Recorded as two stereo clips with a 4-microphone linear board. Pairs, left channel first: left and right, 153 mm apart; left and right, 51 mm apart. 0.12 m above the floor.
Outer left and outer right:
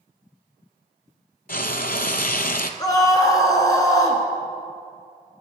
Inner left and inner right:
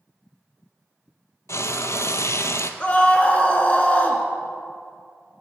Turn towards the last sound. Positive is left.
turn(degrees=25)  # may be behind; listen again after turning